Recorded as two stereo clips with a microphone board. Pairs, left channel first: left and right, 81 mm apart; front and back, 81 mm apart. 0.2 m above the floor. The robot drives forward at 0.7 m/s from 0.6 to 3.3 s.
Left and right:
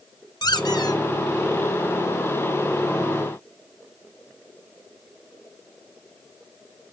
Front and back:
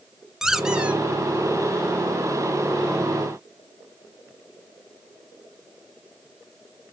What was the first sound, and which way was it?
A squeak, 95° left.